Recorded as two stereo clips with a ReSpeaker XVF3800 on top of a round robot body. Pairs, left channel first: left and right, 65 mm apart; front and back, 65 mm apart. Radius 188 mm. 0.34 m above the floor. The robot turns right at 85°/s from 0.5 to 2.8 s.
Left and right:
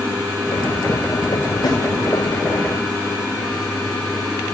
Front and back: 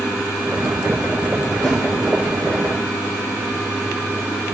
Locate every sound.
1.6 s a snare drum: 80° left, 1.1 m; by 1.8 s 95° left, 1.1 m